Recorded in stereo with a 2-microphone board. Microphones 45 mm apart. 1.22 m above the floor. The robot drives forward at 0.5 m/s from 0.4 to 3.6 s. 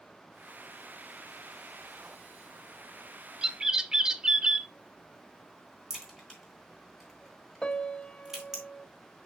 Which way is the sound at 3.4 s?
20° right (ahead or behind).